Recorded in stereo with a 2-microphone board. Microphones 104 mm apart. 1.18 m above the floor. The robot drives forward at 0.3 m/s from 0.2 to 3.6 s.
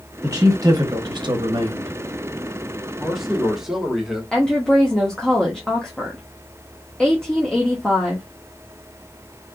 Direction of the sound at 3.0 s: 5° right (ahead or behind).